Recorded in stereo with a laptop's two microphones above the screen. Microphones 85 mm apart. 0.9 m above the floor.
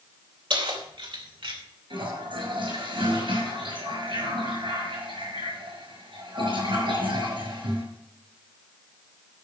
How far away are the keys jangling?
About 3 m.